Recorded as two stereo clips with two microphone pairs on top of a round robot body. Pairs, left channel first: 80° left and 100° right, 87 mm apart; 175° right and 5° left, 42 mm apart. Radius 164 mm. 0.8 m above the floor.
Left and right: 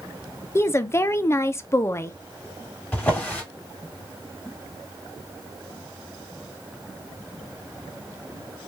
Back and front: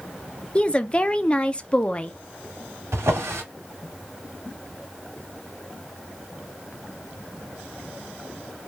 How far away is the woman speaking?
About 0.5 m.